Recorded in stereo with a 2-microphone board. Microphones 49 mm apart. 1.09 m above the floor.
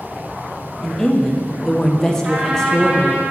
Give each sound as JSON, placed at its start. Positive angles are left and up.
{"t": 0.8, "sound": "a woman speaking", "side_deg": 10, "distance_m": 0.5}
{"t": 2.2, "sound": "a trumpet", "side_deg": -35, "distance_m": 1.6}